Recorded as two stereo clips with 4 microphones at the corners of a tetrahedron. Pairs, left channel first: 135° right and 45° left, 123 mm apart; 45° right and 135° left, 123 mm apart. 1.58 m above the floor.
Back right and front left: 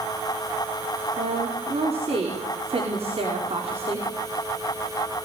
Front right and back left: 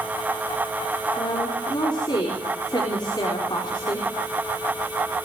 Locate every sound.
1.2 s a woman speaking: 10° left, 4.5 m